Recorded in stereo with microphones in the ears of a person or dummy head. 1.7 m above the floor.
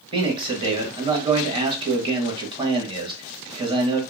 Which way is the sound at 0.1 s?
30° right (ahead or behind).